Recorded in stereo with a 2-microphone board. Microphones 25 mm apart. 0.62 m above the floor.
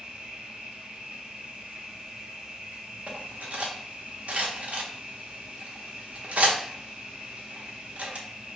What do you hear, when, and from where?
0.0 s an insect: 60° right (ahead or behind), 1.0 m
3.1 s cutlery clinking: 65° right (ahead or behind), 0.9 m